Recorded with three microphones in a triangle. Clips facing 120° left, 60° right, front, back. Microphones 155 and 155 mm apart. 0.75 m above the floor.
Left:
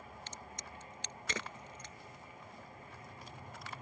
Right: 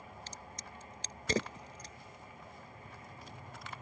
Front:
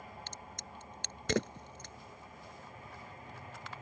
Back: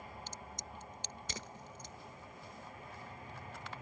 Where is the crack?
5° right.